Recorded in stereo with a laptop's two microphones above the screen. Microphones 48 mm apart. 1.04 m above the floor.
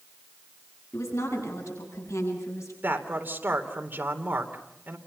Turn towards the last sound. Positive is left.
turn(degrees=-40)  # may be behind; listen again after turning